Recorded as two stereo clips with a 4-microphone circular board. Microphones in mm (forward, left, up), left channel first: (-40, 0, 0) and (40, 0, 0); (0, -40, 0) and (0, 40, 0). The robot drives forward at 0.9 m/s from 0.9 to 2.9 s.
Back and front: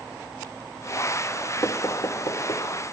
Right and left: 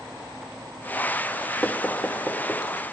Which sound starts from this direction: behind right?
Knocking, at 1.6 s.